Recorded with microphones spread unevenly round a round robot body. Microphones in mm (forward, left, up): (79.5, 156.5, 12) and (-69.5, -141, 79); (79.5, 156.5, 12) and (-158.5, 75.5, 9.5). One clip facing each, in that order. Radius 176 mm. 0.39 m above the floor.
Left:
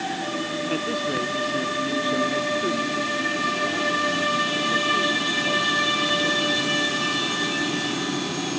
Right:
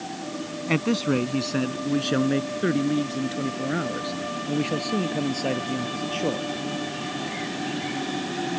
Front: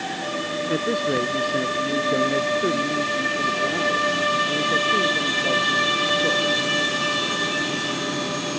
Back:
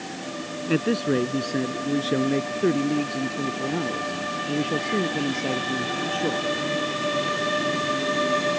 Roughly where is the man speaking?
Right.